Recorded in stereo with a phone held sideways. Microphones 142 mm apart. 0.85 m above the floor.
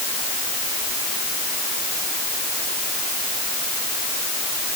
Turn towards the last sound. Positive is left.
No sound to turn to.